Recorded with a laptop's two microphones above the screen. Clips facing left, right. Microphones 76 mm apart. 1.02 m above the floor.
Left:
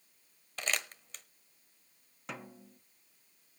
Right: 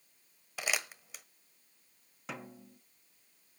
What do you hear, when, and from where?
0.6 s crumpling: 10° right (ahead or behind), 1.1 m
2.3 s a snare drum: centre (ahead or behind), 0.7 m